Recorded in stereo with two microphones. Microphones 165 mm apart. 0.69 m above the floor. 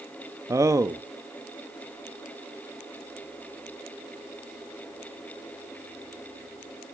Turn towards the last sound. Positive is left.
turn(degrees=-20)  # may be behind; listen again after turning